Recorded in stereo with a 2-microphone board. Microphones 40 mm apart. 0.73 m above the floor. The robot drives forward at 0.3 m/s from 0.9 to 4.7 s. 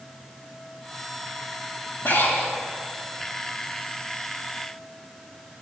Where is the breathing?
50° left (ahead or behind), 1.8 m.